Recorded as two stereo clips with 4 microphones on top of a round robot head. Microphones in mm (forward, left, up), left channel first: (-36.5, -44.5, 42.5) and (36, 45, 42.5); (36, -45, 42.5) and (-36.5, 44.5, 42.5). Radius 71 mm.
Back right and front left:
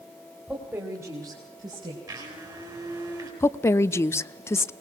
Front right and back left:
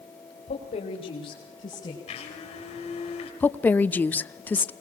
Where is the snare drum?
No snare drum in this recording.